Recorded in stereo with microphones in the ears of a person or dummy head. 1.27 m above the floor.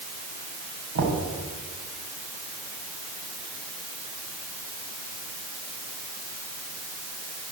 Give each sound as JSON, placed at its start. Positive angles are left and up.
{"t": 0.9, "sound": "knocking", "side_deg": -90, "distance_m": 6.5}